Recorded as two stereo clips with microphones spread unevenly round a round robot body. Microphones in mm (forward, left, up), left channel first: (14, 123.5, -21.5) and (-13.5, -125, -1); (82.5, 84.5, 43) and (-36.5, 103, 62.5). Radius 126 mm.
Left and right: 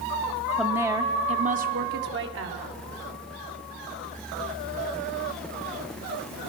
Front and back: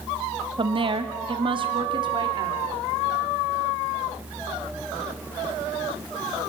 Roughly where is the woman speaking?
Behind.